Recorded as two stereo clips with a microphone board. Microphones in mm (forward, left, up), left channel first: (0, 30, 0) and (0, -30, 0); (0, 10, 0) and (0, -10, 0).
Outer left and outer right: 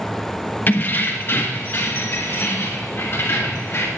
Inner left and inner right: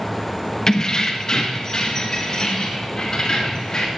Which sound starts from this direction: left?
Keys jangling, at 0.7 s.